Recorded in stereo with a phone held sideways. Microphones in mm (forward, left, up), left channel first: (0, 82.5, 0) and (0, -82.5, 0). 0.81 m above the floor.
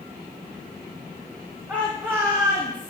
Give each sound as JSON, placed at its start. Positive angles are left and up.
{"t": 1.7, "sound": "a shout", "side_deg": -10, "distance_m": 1.7}